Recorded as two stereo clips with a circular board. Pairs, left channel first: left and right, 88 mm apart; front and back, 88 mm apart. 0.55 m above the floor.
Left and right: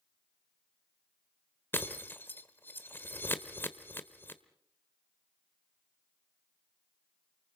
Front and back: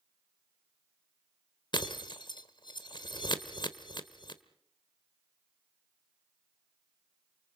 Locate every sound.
1.7 s breaking glass: 25° left, 1.3 m